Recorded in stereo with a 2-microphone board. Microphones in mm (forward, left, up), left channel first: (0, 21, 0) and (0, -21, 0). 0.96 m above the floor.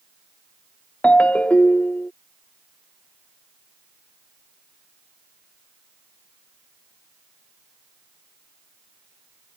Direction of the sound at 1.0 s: 30° left (ahead or behind).